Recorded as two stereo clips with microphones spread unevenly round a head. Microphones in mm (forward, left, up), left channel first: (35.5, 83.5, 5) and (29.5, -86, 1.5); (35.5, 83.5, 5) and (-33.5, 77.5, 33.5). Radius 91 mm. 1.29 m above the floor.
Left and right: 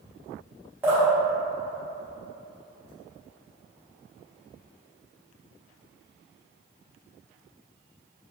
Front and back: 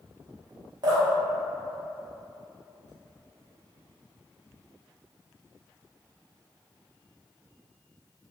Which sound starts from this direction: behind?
Dripping, at 0.8 s.